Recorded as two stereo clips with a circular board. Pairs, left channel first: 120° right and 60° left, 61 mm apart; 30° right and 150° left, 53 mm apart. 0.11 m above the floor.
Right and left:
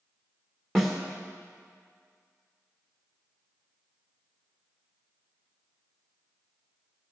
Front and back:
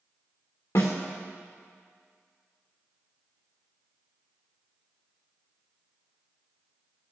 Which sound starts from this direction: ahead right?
A snare drum, at 0.8 s.